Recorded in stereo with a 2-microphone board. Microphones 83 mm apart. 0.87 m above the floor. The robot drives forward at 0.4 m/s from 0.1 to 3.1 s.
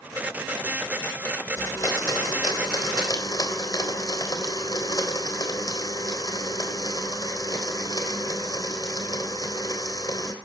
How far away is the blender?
About 3.5 m.